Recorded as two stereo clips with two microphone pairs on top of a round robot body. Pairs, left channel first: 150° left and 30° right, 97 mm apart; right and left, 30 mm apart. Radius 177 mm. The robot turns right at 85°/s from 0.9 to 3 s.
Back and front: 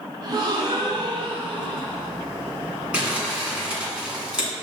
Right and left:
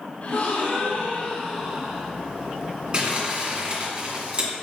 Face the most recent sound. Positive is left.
turn(degrees=55)